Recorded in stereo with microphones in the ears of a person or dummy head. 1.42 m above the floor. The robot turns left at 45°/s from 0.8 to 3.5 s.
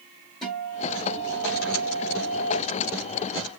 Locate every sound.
0.4 s a guitar: 10° left, 1.2 m; by 2.6 s 70° right, 1.2 m